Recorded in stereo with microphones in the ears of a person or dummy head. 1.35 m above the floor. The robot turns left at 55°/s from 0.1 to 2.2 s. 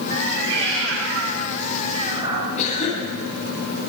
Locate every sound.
0.1 s a cat meowing: 35° right, 6 m; by 2.5 s 150° right, 6 m
2.6 s a cough: 40° left (ahead or behind), 8.5 m